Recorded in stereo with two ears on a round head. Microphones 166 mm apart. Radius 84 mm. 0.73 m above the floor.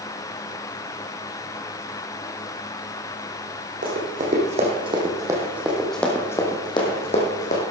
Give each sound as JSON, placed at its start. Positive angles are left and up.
{"t": 3.8, "sound": "running footsteps", "side_deg": -45, "distance_m": 3.0}